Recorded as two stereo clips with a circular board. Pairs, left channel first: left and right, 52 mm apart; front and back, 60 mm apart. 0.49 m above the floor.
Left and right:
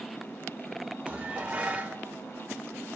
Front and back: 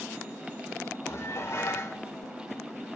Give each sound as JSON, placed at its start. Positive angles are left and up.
{"t": 1.1, "sound": "dishes clattering", "azimuth_deg": -30, "distance_m": 0.8}